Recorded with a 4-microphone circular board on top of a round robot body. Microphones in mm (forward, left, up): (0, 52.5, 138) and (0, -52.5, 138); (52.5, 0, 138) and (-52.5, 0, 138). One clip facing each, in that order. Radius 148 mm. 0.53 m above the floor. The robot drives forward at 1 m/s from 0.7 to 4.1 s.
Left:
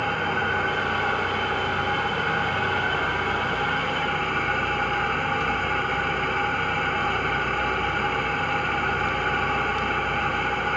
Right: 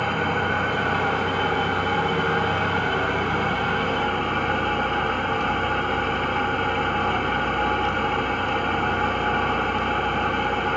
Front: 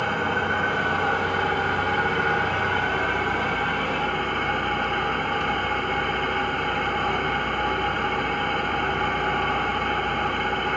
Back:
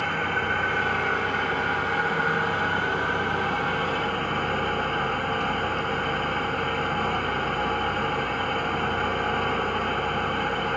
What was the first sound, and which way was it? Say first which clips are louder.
An engine running: right 2 dB, front 2 dB; 70° right.